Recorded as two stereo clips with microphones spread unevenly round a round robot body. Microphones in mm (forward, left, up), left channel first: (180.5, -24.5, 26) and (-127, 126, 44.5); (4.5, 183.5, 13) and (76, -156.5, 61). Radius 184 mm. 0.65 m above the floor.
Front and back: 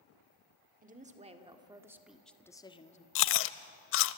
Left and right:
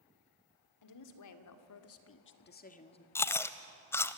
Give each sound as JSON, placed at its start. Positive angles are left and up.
{"t": 0.8, "sound": "a woman speaking", "azimuth_deg": 90, "distance_m": 2.0}
{"t": 3.1, "sound": "chewing", "azimuth_deg": 15, "distance_m": 0.5}